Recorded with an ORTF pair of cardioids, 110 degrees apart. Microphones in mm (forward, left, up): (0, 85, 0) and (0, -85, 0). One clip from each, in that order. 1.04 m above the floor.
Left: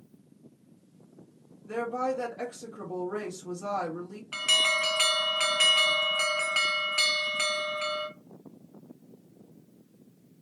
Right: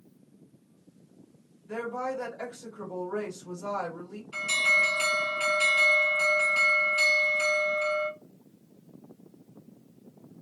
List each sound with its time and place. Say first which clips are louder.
1.7 s a woman speaking: left 2 dB; 55° left, 1.7 m
4.3 s an alarm: even; 65° left, 1.3 m